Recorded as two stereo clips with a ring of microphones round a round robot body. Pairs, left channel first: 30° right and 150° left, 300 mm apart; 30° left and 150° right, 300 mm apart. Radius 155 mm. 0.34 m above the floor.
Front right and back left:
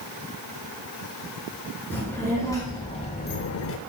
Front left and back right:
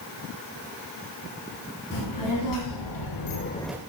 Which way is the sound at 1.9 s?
55° left.